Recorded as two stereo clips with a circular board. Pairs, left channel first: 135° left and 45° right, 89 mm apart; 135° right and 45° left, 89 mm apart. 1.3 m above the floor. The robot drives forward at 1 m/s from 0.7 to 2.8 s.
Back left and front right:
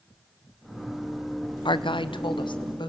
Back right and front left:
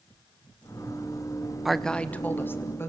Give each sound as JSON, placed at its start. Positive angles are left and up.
{"t": 1.6, "sound": "a woman speaking", "azimuth_deg": 130, "distance_m": 0.7}